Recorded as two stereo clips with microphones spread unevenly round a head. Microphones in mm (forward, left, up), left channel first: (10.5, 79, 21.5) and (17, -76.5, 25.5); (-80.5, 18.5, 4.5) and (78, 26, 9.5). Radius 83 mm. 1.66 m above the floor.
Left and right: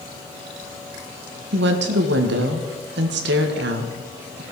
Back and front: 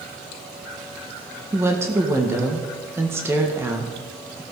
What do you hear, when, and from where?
1.5 s a woman speaking: 75° right, 1.6 m